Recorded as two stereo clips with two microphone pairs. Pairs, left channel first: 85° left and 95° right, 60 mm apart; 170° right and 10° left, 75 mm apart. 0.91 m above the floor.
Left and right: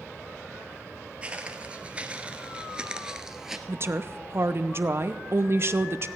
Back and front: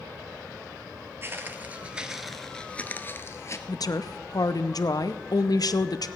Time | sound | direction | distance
1.2 | footsteps | 35° right | 1.2 m
3.7 | a woman speaking | 140° right | 0.6 m